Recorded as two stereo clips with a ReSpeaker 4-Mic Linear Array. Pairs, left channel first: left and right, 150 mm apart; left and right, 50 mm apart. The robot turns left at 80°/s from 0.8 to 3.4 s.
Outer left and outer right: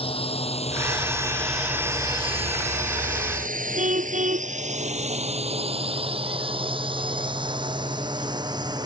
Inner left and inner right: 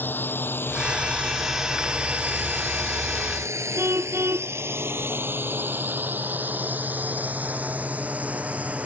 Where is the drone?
40° left (ahead or behind); by 8.9 s 30° right (ahead or behind).